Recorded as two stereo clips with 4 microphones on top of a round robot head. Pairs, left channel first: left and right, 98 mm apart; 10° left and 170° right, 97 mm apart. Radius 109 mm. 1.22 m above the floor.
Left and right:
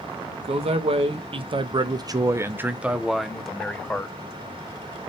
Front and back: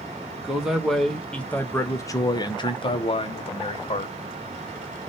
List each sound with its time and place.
0.4 s a man speaking: 90° right, 1.2 m; by 4.2 s 15° left, 1.3 m